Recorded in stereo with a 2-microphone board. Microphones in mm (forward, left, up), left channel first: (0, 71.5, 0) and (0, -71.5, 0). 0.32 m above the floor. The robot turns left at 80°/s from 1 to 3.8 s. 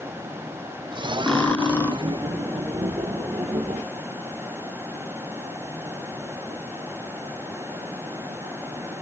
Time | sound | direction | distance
1.3 | cutlery clinking | 5° left (ahead or behind) | 0.6 m